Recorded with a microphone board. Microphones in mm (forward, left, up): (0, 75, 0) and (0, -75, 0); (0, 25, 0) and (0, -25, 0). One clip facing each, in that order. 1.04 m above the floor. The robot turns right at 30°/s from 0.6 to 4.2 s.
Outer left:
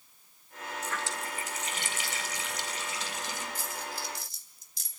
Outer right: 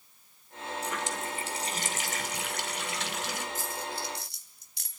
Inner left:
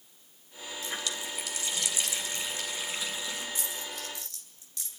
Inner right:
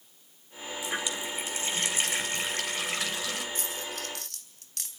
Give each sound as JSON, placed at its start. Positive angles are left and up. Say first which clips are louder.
{"t": 0.8, "sound": "a running tap", "louder": "outer right 2 dB, inner right 3 dB", "azimuth_deg": -170, "distance_m": 3.0}
{"t": 3.5, "sound": "a dropped coin", "louder": "outer right 3 dB, inner right 2 dB", "side_deg": -45, "distance_m": 4.0}